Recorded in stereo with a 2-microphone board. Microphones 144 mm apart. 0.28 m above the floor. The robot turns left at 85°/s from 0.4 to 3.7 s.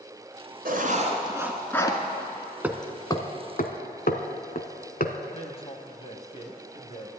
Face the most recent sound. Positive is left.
turn(degrees=40)  # may be behind; listen again after turning